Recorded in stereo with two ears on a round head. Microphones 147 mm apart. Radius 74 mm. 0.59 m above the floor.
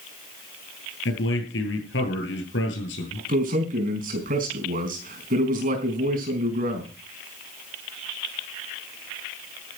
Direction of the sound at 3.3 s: 55° right (ahead or behind).